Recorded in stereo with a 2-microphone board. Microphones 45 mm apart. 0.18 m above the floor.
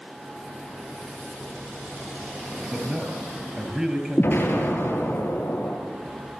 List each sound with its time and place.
2.7 s a man speaking: 15° right (ahead or behind), 4 m
4.2 s an explosion: 45° left (ahead or behind), 4.5 m